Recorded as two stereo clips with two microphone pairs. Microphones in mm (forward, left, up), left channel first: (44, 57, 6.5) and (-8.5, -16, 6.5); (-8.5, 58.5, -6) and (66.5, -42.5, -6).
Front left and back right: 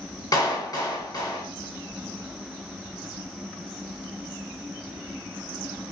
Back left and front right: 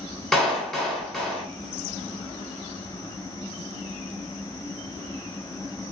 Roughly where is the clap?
Ahead left.